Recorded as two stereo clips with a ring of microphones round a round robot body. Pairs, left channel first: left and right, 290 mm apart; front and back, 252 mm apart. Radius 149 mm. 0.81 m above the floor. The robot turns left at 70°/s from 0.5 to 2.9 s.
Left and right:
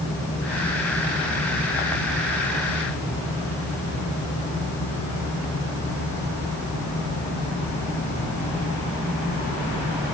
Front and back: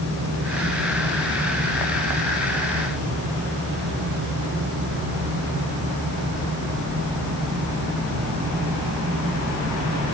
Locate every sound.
Only background noise.